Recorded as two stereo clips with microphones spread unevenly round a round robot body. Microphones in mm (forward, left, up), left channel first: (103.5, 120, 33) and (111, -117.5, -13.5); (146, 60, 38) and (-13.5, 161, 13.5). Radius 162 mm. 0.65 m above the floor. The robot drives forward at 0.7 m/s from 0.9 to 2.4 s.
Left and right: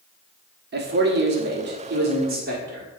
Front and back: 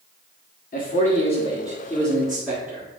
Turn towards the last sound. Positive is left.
turn(degrees=-130)